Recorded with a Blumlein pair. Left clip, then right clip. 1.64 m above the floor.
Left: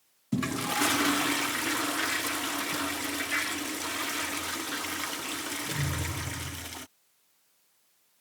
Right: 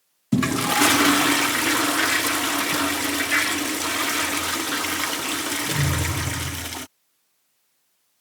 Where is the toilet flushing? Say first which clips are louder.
Right 9 dB; 25° right.